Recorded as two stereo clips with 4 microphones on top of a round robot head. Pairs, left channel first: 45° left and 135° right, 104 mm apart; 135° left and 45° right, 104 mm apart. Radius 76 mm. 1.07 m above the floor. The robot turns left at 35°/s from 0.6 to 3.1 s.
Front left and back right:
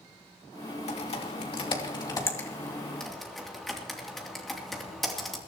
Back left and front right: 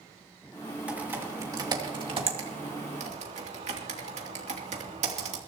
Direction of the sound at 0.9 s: 35° left.